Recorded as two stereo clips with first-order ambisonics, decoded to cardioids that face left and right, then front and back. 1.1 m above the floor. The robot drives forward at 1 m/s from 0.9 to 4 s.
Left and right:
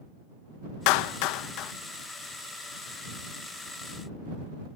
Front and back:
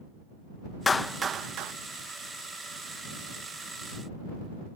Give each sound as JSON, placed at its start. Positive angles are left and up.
{"t": 0.9, "sound": "a clap", "azimuth_deg": 75}